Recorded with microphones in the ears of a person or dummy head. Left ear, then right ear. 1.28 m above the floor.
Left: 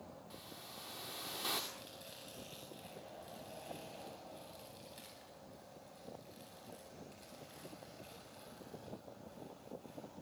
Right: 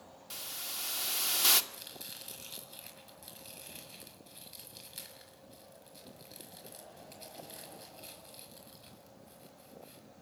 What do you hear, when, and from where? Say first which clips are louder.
0.3 s a hiss: right 14 dB; 65° right (ahead or behind), 2 m
1.7 s chopping: right 5 dB; 40° right (ahead or behind), 8.5 m